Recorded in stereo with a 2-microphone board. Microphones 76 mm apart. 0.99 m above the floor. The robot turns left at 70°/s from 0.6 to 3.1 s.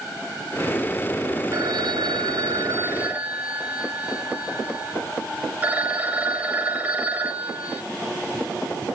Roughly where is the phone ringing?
Ahead right.